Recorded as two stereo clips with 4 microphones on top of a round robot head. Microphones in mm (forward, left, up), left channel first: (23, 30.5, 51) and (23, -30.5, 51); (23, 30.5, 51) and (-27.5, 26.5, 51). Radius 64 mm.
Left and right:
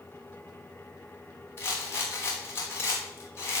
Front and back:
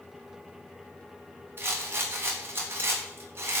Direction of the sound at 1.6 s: 140° left.